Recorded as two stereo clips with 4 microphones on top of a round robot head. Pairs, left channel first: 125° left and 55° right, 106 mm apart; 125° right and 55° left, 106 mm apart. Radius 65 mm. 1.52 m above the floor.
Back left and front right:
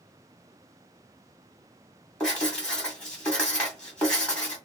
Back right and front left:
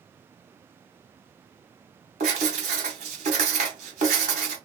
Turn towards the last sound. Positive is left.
turn(degrees=45)